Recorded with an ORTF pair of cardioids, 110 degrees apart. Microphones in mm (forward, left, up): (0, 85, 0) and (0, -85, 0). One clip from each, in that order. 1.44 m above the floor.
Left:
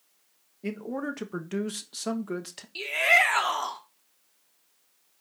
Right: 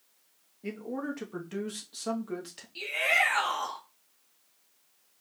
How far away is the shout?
About 1.7 m.